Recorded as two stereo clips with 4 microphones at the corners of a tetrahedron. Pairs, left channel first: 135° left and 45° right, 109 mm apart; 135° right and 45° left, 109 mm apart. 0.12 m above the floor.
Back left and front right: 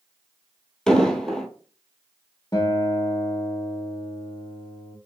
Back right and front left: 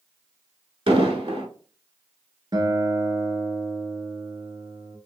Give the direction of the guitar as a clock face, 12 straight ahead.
9 o'clock.